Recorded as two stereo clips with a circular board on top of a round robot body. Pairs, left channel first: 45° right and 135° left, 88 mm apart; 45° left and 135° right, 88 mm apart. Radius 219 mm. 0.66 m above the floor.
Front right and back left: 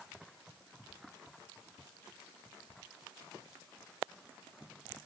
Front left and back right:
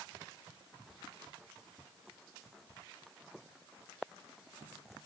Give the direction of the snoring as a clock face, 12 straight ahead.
I don't hear snoring.